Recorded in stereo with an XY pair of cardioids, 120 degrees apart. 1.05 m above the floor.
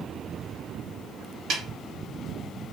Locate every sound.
1.5 s a snare drum: 60° right, 1.1 m